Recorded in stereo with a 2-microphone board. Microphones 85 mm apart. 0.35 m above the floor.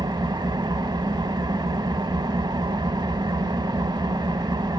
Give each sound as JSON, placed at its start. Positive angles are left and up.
{"t": 0.0, "sound": "an engine running", "side_deg": -60, "distance_m": 0.7}